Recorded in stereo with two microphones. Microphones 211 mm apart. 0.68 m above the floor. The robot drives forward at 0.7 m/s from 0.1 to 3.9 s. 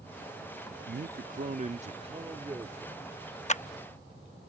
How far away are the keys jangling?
I don't hear keys jangling.